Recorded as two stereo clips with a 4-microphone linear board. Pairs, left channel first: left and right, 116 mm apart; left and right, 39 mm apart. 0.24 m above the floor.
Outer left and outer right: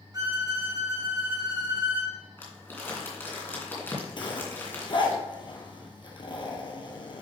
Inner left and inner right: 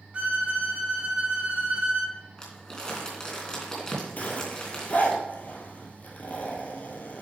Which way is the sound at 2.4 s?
20° left (ahead or behind).